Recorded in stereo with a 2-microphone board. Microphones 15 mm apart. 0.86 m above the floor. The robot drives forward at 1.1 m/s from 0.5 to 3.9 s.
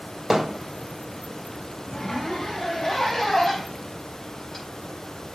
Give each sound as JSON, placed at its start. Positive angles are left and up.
{"t": 0.3, "sound": "hammering", "side_deg": -15, "distance_m": 2.5}
{"t": 1.9, "sound": "a zipper", "side_deg": 30, "distance_m": 5.0}